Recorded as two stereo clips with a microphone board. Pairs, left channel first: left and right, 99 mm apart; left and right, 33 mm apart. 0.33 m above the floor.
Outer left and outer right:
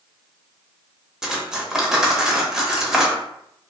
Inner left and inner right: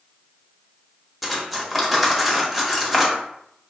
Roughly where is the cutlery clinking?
Centre.